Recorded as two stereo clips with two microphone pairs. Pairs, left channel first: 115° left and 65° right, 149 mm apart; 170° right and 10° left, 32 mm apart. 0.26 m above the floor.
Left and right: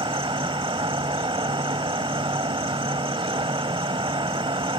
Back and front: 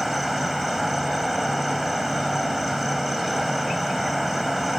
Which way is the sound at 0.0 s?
70° right.